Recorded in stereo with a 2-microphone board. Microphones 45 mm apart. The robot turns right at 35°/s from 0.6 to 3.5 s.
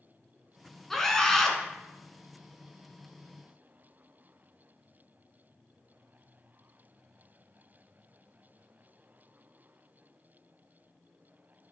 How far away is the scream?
About 1.1 m.